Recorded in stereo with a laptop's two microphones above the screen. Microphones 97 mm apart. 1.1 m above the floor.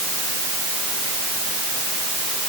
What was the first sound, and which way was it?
Only background noise.